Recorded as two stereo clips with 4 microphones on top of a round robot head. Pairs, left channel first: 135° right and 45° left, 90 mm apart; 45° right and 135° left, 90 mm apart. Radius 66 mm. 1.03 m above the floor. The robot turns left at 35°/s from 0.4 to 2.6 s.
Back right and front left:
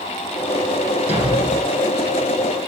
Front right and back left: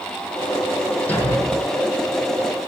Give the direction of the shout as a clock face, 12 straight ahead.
I don't hear a shout.